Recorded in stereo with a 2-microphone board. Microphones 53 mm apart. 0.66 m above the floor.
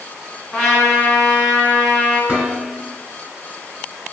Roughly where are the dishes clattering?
Right.